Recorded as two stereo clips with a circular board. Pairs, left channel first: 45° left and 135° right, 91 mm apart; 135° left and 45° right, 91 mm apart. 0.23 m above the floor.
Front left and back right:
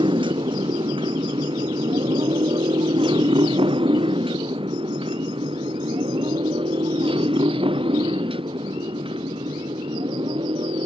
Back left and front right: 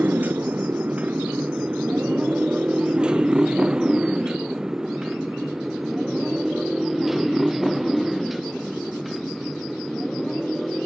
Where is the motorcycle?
115° right; by 10.8 s 135° right.